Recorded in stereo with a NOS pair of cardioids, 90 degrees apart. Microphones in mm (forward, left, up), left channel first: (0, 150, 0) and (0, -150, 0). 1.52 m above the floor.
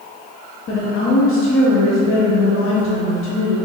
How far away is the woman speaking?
About 0.7 m.